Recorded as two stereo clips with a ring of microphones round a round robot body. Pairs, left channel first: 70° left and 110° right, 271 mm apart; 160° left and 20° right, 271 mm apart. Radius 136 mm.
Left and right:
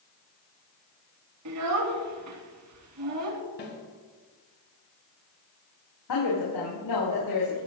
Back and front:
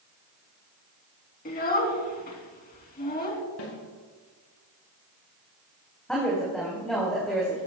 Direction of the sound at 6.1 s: 70° left.